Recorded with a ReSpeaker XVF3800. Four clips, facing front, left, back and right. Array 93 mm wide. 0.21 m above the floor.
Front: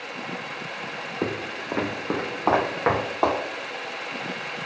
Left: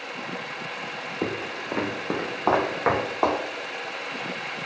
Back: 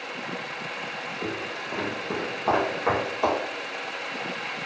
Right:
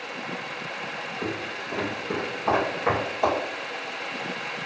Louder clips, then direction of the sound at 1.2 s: Left 4 dB, front 5 dB; 35° left.